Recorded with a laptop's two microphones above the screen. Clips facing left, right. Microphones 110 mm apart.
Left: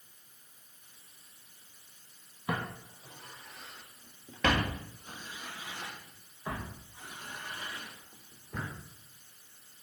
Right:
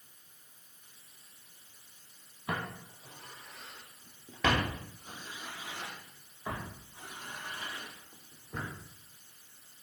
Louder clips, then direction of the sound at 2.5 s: Left 2 dB; 10° left (ahead or behind).